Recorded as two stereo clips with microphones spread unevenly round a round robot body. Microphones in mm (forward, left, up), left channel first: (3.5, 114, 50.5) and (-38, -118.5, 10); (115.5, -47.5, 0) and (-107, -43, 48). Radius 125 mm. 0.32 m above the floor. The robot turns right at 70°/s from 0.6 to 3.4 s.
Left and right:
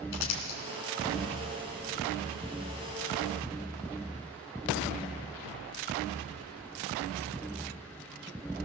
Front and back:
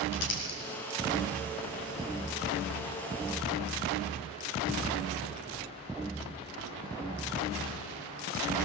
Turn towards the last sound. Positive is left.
turn(degrees=-130)